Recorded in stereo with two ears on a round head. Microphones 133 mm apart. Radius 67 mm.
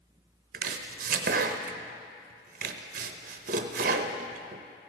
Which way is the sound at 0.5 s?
60° right (ahead or behind).